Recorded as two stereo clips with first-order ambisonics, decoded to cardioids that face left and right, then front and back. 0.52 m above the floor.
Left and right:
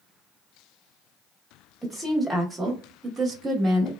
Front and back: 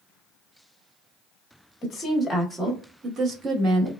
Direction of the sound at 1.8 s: 5° left.